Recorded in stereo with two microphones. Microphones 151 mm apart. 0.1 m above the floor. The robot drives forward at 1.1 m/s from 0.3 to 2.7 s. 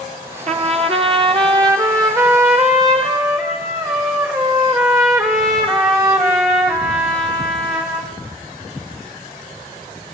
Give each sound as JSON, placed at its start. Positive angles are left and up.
{"t": 0.5, "sound": "a trumpet", "side_deg": -45, "distance_m": 1.6}